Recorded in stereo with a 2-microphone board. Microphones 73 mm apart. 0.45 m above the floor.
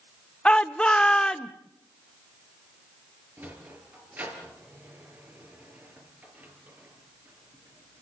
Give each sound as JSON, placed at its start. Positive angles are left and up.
{"t": 0.5, "sound": "a shout", "side_deg": 15, "distance_m": 0.7}
{"t": 3.4, "sound": "a sliding door", "side_deg": -25, "distance_m": 5.0}